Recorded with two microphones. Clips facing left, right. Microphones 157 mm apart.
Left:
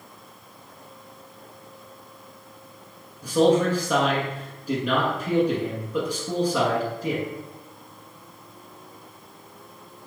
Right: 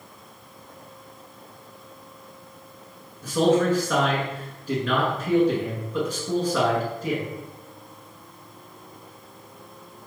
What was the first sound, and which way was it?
A man speaking, 15° left (ahead or behind).